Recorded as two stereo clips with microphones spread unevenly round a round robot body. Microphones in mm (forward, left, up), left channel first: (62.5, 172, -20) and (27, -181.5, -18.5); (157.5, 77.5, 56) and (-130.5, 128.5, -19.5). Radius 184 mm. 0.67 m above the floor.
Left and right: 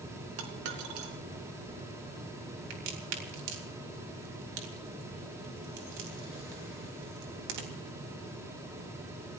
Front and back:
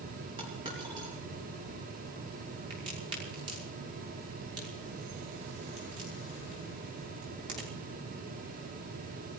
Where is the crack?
115° right, 3.5 m.